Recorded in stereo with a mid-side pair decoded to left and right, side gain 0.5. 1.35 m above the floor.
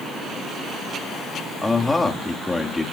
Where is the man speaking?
15° left, 3 m.